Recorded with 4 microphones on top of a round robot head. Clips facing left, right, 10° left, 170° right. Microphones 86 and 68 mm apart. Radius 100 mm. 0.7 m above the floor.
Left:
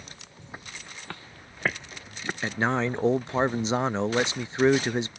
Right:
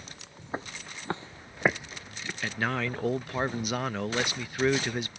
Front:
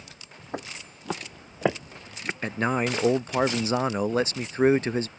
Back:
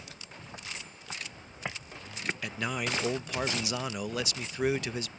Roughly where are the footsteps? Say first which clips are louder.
Right 6 dB, front 10 dB; ahead right.